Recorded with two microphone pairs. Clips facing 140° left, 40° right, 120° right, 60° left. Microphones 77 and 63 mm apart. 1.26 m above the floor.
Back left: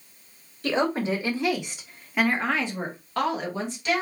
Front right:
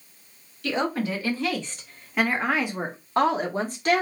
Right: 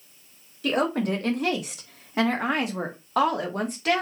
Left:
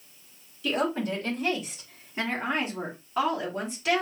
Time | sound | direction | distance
0.6 | a woman speaking | 160° right | 1.6 m